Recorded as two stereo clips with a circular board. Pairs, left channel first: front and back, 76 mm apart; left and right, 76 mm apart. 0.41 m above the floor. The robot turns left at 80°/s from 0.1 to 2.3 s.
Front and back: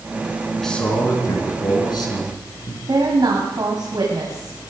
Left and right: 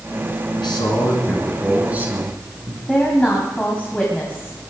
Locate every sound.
0.6 s a man speaking: 90° left, 4.5 m; by 2.8 s 50° right, 4.5 m
2.9 s a woman speaking: 160° left, 2.5 m